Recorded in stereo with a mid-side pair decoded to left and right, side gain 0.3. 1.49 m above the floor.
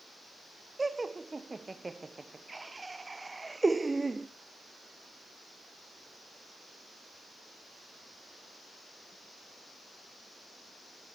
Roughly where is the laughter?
Ahead right.